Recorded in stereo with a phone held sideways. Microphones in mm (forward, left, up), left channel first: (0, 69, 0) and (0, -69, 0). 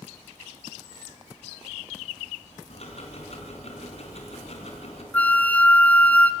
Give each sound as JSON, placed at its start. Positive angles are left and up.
{"t": 2.7, "sound": "ticking", "side_deg": 55, "distance_m": 3.5}
{"t": 5.1, "sound": "a flute", "side_deg": 10, "distance_m": 0.7}